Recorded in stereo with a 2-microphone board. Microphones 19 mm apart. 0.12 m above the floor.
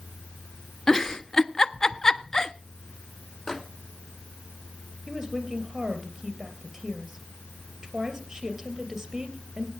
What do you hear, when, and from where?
0.9 s a giggle: 20° left (ahead or behind), 0.5 m
3.5 s a microwave: 20° left (ahead or behind), 1.3 m
5.1 s a woman speaking: 10° right (ahead or behind), 3 m